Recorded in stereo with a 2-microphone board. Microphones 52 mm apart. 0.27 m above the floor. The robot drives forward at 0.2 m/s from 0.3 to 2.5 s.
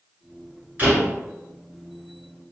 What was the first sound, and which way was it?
A door slam, 25° right (ahead or behind).